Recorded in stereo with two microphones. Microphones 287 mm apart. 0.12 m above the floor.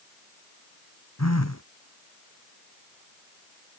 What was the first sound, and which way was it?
A phone buzzing, 65° left (ahead or behind).